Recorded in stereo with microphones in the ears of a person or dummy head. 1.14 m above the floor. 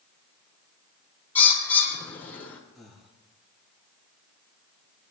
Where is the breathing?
5° left (ahead or behind), 1.7 m.